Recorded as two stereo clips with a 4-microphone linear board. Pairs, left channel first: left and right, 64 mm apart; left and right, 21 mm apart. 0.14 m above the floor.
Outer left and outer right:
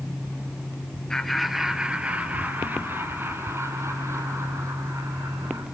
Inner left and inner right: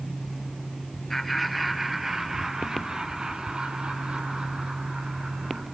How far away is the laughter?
About 2 m.